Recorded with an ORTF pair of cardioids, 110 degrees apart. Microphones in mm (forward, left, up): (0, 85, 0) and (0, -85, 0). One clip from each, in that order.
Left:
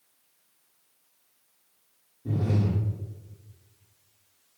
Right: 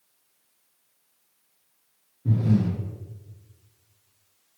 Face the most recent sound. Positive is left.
turn(degrees=-10)